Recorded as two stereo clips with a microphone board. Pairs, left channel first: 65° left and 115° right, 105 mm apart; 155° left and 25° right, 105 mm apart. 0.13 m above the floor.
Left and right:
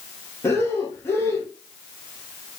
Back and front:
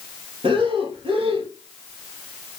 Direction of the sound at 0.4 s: Straight ahead.